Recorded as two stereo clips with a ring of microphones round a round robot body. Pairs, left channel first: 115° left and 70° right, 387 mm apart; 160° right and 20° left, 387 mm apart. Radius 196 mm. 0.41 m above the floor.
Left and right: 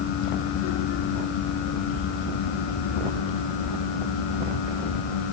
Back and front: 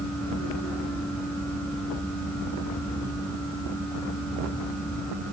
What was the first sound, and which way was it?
Only background noise.